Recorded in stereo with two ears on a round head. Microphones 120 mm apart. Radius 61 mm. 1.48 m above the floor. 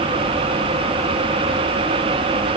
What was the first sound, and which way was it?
Only background noise.